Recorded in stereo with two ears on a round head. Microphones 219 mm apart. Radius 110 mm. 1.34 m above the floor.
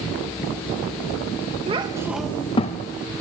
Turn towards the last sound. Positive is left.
turn(degrees=35)  # may be behind; listen again after turning